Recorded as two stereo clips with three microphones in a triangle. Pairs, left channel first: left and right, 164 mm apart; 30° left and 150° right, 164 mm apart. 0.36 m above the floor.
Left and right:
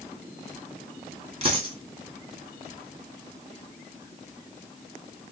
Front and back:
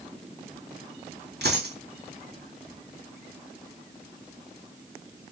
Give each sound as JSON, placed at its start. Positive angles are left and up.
{"t": 1.4, "sound": "a dropped coin", "azimuth_deg": -145, "distance_m": 2.5}